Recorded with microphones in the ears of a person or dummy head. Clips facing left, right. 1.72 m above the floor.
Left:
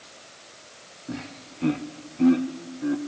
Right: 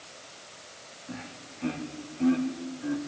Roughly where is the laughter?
Left.